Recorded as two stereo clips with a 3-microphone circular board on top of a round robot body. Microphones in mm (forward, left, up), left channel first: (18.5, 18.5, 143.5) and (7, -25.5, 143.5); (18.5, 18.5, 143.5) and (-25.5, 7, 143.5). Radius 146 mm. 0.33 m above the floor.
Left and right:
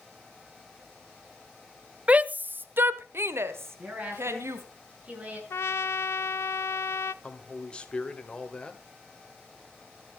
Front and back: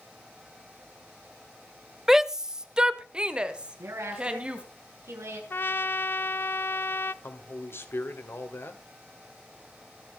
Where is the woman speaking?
165° right, 6.5 m.